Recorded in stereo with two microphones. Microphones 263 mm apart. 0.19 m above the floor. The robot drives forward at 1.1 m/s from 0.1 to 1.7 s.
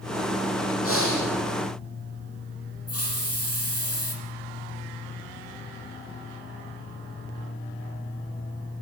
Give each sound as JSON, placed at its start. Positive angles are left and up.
{"t": 0.8, "sound": "breathing", "side_deg": 55, "distance_m": 8.5}
{"t": 2.9, "sound": "a hiss", "side_deg": 65, "distance_m": 6.0}